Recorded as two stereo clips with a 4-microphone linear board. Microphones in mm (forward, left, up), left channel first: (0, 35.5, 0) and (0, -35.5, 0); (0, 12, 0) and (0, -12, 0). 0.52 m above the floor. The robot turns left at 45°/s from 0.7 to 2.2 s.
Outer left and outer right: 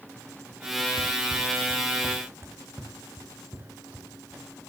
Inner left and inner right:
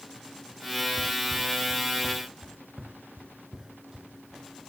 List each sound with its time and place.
1.0 s running footsteps: 55° right (ahead or behind), 1.1 m; by 4.4 s 25° right (ahead or behind), 4.5 m